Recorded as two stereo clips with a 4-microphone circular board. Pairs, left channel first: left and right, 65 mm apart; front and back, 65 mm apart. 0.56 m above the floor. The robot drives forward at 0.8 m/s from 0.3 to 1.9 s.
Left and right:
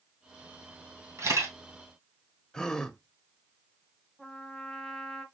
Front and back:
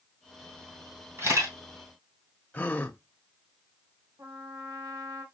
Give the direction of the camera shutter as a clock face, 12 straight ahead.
4 o'clock.